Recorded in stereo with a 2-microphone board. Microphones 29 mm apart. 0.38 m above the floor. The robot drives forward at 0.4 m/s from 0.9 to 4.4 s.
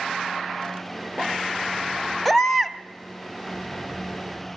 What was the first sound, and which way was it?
A baby crying, 5° left (ahead or behind).